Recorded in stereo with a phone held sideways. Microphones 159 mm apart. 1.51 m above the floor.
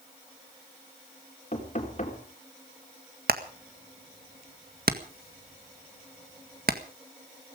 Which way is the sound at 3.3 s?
70° right (ahead or behind).